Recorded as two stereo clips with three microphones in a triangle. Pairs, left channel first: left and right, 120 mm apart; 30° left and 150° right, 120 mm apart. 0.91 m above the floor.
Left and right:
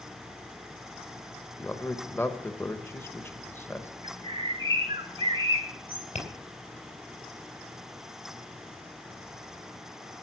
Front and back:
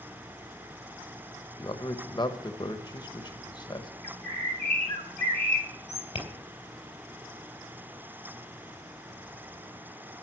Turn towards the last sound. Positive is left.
turn(degrees=70)